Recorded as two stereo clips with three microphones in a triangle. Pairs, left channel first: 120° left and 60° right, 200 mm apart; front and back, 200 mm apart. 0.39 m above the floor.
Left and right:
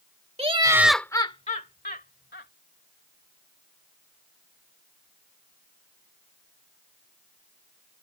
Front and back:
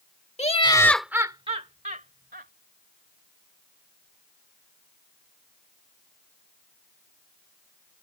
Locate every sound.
0.4 s laughter: 25° right; by 2.5 s 145° left